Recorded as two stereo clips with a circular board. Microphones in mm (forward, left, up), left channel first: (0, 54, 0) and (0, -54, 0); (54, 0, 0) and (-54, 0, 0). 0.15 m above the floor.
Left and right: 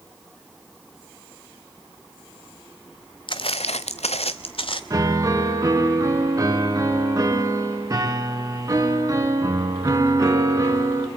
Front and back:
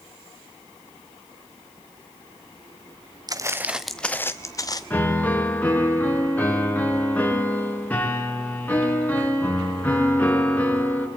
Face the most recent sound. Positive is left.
turn(degrees=-65)